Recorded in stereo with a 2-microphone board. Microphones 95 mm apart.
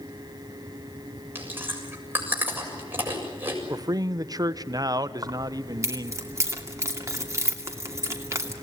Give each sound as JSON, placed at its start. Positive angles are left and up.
{"t": 1.4, "sound": "chewing", "side_deg": -20, "distance_m": 7.0}
{"t": 3.7, "sound": "a man speaking", "side_deg": -40, "distance_m": 0.9}
{"t": 5.2, "sound": "keys jangling", "side_deg": -30, "distance_m": 2.5}